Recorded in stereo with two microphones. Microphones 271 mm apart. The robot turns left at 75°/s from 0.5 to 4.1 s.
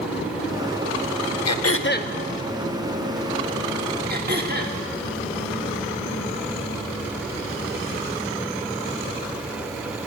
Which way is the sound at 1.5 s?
75° left.